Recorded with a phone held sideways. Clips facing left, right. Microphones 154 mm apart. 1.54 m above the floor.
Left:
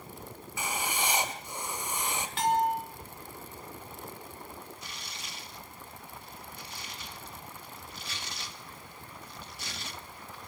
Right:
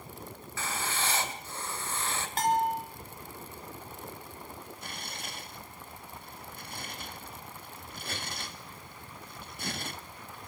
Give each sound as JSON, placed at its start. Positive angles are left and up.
{"t": 0.6, "sound": "writing", "side_deg": 15, "distance_m": 2.5}
{"t": 2.4, "sound": "a bell", "side_deg": -45, "distance_m": 4.5}
{"t": 4.8, "sound": "tearing paper", "side_deg": -50, "distance_m": 1.9}